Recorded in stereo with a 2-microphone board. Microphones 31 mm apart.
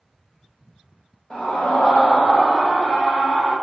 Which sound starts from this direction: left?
A scream, at 1.3 s.